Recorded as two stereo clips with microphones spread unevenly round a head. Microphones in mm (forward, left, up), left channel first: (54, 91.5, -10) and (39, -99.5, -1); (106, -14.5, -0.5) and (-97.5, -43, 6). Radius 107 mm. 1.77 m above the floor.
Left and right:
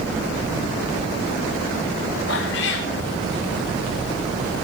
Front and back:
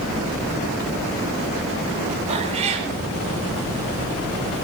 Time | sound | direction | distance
2.3 | a cat meowing | 125° left | 4 m